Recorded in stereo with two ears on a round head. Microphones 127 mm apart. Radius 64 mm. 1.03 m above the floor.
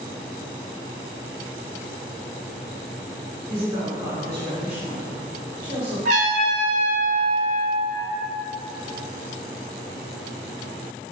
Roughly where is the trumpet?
Right.